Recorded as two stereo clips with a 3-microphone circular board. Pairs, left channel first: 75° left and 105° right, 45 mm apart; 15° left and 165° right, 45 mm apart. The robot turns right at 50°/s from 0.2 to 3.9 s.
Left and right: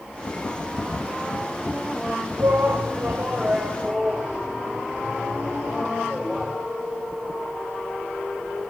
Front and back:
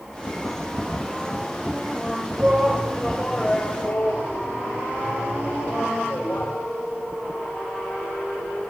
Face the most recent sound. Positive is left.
turn(degrees=-35)